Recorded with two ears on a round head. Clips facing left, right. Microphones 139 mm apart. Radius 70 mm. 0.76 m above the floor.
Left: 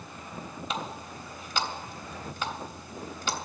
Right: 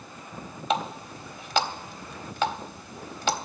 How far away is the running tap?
About 1.1 m.